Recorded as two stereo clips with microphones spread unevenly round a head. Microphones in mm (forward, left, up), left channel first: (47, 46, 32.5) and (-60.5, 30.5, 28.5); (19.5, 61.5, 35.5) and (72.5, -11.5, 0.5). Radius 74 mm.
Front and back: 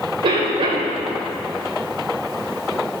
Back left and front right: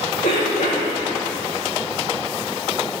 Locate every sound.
0.2 s a cough: 145° left, 5 m